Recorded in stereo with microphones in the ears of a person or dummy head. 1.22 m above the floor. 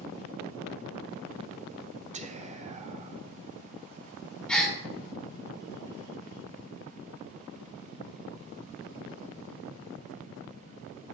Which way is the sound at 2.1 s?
30° right (ahead or behind).